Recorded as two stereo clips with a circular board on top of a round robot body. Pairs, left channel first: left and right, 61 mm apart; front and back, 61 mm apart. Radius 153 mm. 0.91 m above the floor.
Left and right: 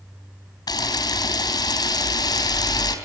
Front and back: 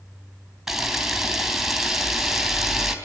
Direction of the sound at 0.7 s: 100° left.